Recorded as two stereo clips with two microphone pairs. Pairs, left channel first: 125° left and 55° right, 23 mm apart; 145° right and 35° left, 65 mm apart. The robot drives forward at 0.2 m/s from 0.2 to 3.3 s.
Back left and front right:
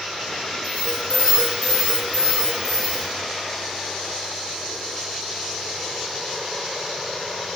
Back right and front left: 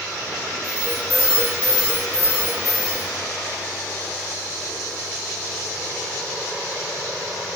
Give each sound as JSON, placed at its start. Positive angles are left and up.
{"t": 0.6, "sound": "an alarm", "azimuth_deg": 150, "distance_m": 3.0}